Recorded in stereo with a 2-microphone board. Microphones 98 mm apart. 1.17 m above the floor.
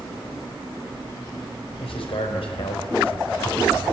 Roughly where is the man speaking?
Left.